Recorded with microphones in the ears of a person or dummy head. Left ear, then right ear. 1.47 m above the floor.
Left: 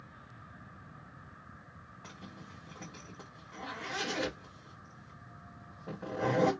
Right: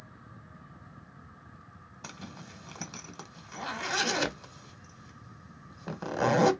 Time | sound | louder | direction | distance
2.0 | a zipper | right 6 dB | 80° right | 0.9 m